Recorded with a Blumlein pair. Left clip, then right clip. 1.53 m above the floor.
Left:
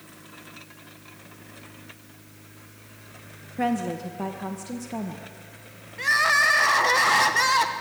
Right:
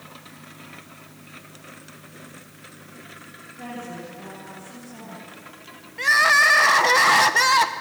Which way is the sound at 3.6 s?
35° left.